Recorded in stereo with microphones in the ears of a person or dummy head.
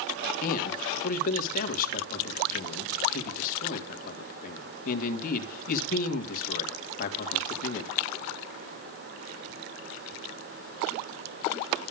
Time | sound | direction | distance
0.4 | a man speaking | 50° left (ahead or behind) | 2.5 m